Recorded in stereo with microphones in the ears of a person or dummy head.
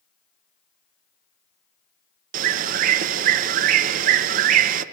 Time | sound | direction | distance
2.3 | a bird | 40° right (ahead or behind) | 0.8 m